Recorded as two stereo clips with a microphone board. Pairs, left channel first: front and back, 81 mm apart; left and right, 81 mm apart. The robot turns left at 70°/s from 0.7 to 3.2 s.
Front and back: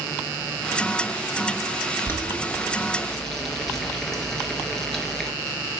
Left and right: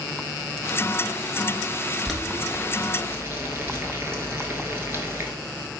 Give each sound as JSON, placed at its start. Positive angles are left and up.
{"t": 2.0, "sound": "boiling", "azimuth_deg": 5, "distance_m": 0.8}